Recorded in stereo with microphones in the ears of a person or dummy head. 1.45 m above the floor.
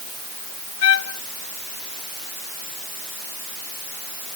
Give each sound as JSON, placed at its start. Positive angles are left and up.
{"t": 0.8, "sound": "a trumpet", "side_deg": 85}